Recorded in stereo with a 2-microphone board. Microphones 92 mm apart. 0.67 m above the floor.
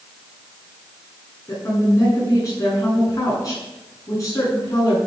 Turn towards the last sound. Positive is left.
turn(degrees=40)  # may be behind; listen again after turning